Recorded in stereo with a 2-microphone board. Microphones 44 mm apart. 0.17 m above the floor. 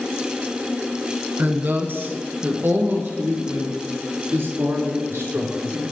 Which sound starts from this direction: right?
A woman speaking, at 1.4 s.